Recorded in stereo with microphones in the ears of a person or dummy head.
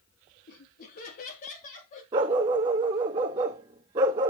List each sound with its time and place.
0.5 s laughter: 55° left (ahead or behind), 2 m; by 2.0 s 45° left (ahead or behind), 3 m
2.1 s a dog barking: 20° right (ahead or behind), 1.0 m